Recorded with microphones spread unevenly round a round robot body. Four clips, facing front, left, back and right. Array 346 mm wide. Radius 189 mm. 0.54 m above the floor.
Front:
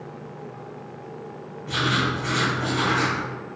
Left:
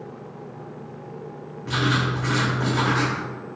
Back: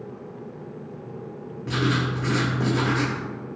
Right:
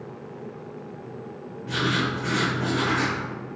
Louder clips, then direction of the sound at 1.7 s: Left 2 dB, even; 165° left.